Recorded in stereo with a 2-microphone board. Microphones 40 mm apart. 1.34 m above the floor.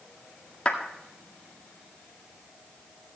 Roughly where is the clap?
Left.